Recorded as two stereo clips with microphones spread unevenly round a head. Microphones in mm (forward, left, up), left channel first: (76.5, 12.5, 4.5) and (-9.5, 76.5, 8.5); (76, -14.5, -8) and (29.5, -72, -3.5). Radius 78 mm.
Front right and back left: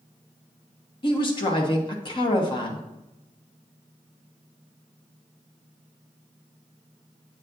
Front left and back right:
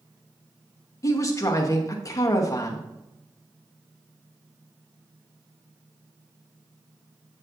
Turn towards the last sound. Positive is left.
turn(degrees=5)